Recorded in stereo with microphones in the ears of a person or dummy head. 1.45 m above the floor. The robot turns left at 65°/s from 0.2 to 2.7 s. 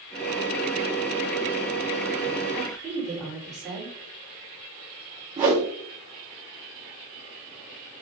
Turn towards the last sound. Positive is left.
turn(degrees=-15)  # may be behind; listen again after turning